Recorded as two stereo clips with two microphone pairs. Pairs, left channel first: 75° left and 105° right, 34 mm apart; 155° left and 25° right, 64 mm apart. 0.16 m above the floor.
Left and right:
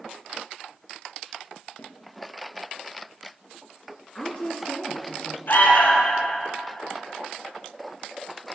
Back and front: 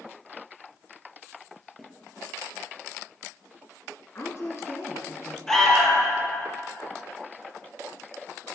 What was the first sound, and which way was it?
A snare drum, 65° left.